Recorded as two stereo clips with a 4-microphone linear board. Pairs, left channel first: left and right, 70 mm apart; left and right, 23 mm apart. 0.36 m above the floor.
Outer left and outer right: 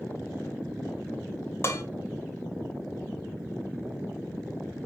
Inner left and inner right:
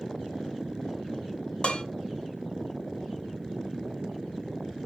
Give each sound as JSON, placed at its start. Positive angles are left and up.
{"t": 1.6, "sound": "dishes clattering", "side_deg": 40, "distance_m": 1.4}